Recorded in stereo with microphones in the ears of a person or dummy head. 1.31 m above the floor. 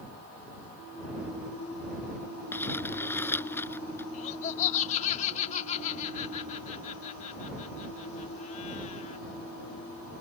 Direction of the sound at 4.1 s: 40° left (ahead or behind).